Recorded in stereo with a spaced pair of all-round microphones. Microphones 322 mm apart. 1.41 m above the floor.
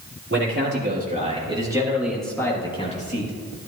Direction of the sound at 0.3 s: 35° right (ahead or behind).